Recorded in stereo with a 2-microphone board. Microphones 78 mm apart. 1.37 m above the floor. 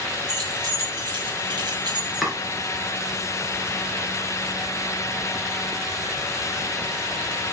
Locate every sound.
0.3 s keys jangling: 55° right (ahead or behind), 3.5 m
2.2 s chopping: centre (ahead or behind), 4 m